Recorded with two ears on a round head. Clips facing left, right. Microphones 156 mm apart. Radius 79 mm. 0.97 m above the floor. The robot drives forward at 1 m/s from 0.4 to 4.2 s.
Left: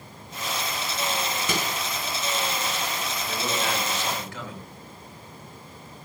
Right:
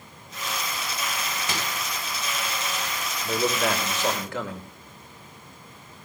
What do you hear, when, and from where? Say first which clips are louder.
1.5 s a microwave: left 3 dB; 90° left, 2 m; by 1.8 s 85° left, 2 m
3.2 s a man speaking: right 5 dB; 40° right (ahead or behind), 5 m; by 4.7 s 45° right (ahead or behind), 4.5 m